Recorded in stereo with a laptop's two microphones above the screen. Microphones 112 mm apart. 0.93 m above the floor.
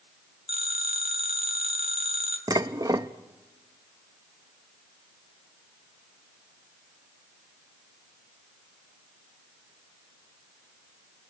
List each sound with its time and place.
0.5 s a phone ringing: 70° right (ahead or behind), 2.5 m
2.5 s dishes clattering: 35° right (ahead or behind), 0.6 m